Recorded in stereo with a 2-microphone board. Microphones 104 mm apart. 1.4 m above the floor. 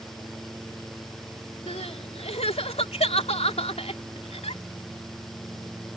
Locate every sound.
1.7 s crying: 80° left